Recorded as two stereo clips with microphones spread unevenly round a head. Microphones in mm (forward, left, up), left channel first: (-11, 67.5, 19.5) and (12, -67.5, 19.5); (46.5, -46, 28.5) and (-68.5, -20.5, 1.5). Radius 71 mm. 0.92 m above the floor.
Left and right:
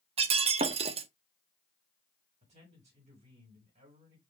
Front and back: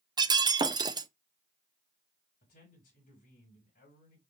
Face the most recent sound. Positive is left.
turn(degrees=-30)